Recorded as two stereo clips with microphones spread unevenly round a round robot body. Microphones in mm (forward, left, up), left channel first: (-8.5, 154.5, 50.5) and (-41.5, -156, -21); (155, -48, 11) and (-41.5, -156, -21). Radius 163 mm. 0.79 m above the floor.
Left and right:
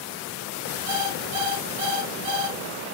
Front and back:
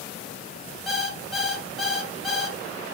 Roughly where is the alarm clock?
Ahead right.